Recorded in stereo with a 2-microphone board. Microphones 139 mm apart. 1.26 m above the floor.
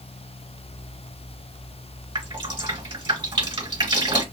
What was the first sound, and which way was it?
Dripping, 35° right (ahead or behind).